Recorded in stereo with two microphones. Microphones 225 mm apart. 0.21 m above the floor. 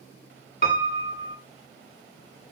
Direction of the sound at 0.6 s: 40° left (ahead or behind).